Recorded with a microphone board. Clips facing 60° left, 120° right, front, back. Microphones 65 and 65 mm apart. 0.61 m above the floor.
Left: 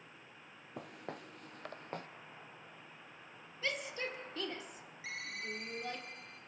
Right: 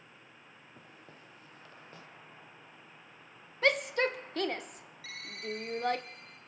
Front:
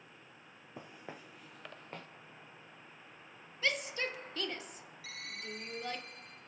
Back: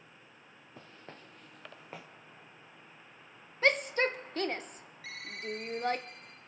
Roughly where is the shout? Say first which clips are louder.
Right 11 dB, back 8 dB; behind right.